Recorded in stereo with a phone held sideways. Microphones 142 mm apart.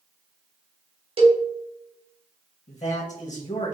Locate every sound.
1.2 s a cowbell: 40° right (ahead or behind), 0.9 m
2.7 s a man speaking: 55° left (ahead or behind), 1.3 m